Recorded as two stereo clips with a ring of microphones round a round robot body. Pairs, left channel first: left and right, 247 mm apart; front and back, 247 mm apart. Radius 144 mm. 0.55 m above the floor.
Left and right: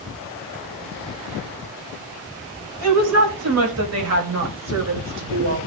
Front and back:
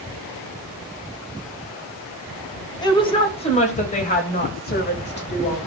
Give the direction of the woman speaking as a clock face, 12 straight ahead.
2 o'clock.